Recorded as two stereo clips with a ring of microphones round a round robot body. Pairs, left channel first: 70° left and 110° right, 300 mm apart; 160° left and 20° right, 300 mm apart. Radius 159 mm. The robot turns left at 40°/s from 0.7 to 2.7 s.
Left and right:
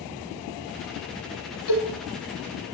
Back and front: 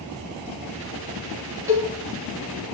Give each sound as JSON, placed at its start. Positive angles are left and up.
{"t": 1.7, "sound": "a cowbell", "azimuth_deg": 60, "distance_m": 5.0}